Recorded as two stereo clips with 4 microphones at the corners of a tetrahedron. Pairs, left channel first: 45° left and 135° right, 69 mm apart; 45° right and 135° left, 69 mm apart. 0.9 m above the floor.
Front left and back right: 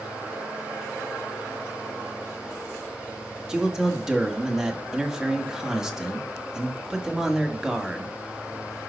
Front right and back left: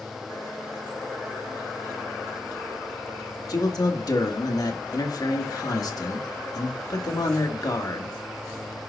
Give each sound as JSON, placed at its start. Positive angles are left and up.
{"t": 3.5, "sound": "a man speaking", "azimuth_deg": -55, "distance_m": 1.4}